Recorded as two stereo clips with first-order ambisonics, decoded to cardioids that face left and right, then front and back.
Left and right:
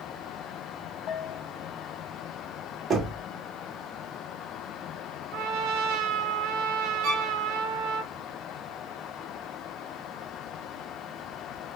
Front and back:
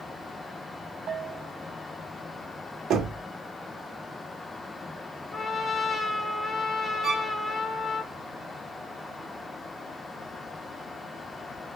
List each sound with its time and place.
1.1 s a bell: 130° left, 1.1 m
2.9 s knocking: 140° right, 1.1 m
5.3 s a trumpet: 80° right, 0.8 m
7.0 s a violin: 80° right, 2.5 m